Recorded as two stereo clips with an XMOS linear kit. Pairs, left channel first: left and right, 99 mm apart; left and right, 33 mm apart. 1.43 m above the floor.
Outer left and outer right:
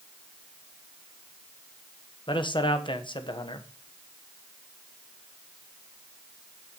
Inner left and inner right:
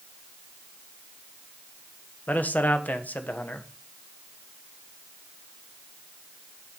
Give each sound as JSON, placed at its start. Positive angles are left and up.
{"t": 2.3, "sound": "a man speaking", "side_deg": 50, "distance_m": 1.1}